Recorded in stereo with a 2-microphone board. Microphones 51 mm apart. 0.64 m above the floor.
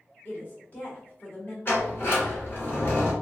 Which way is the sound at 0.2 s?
40° left (ahead or behind).